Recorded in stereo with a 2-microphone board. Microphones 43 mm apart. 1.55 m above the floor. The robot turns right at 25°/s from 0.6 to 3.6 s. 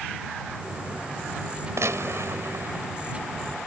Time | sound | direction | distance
1.8 | a gunshot | 85° right | ?